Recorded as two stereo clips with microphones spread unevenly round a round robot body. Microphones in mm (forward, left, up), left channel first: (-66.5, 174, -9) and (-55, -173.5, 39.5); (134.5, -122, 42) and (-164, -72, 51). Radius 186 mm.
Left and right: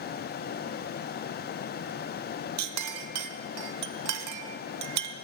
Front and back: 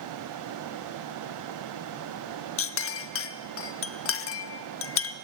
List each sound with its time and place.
2.6 s a clink: 45° right, 0.6 m